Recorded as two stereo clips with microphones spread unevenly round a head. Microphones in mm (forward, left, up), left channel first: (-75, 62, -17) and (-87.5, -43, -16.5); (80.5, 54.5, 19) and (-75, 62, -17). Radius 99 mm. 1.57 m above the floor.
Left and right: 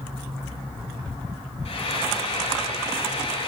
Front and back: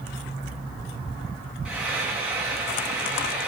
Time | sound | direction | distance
1.6 | frying | 95° left | 6.5 m